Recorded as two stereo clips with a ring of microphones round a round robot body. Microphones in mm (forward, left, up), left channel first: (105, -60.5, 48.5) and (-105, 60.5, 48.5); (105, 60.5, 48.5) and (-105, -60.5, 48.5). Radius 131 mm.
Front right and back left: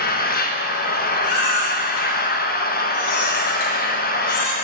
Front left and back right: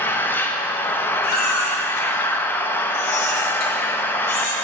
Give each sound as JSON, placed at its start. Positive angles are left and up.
{"t": 0.0, "sound": "an engine running", "azimuth_deg": -45, "distance_m": 0.7}
{"t": 1.2, "sound": "a baby crying", "azimuth_deg": -20, "distance_m": 1.6}